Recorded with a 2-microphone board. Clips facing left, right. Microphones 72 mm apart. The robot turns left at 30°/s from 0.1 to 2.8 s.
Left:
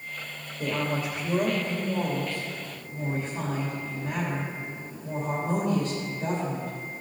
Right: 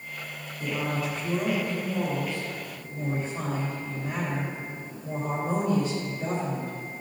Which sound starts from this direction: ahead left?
A woman speaking, at 0.6 s.